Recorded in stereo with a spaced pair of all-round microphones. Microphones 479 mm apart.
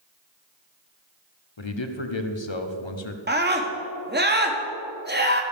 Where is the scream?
20° right (ahead or behind), 1.6 m.